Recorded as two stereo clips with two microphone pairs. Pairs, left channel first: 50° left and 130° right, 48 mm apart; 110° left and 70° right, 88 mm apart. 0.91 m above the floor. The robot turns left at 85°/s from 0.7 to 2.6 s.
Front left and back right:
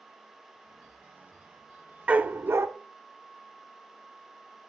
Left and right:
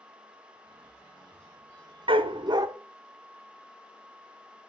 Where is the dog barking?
65° right, 0.9 m; by 2.7 s 105° right, 0.9 m.